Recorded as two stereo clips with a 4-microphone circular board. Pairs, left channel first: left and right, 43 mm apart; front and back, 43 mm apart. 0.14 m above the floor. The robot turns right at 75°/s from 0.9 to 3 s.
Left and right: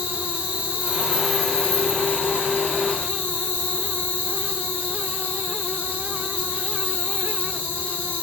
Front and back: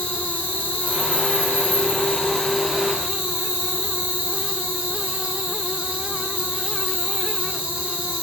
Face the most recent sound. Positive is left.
turn(degrees=125)